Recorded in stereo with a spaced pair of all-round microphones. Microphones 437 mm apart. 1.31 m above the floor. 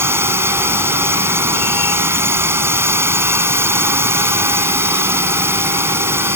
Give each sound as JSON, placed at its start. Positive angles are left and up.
{"t": 0.0, "sound": "a drone", "side_deg": -5}